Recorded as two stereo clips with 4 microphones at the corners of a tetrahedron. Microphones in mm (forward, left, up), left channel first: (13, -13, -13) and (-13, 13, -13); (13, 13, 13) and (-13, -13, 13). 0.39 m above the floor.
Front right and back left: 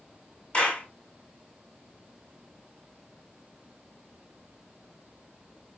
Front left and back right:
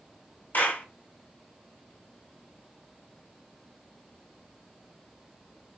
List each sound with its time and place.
0.5 s a clap: 10° left, 1.7 m